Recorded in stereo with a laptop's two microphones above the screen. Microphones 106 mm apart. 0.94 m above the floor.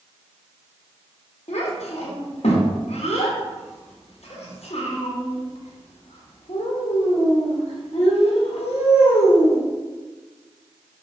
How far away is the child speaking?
About 0.8 m.